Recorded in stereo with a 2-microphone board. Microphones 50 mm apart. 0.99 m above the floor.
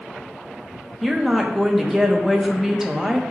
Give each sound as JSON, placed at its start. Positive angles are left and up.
{"t": 1.0, "sound": "a woman speaking", "side_deg": -5, "distance_m": 0.6}